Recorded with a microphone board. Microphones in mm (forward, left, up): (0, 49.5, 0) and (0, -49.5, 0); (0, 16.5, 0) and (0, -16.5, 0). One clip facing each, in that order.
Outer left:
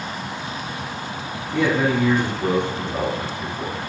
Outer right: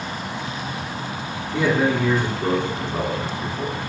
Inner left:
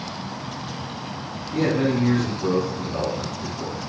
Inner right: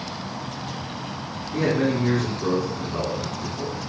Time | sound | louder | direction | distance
1.5 | a man speaking | even, inner left 1 dB | 50° left (ahead or behind) | 2.5 m